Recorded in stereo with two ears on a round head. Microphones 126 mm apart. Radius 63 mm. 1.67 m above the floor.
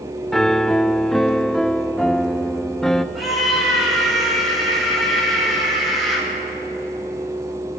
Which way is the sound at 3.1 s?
Centre (ahead or behind).